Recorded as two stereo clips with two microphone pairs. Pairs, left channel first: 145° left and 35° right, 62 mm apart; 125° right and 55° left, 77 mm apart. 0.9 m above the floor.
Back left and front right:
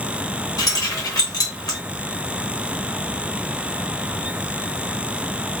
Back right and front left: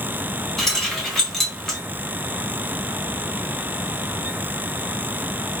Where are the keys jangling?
145° left, 1.0 m.